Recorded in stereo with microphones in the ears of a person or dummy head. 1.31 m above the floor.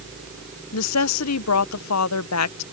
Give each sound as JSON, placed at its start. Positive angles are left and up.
{"t": 0.7, "sound": "a woman speaking", "side_deg": 80}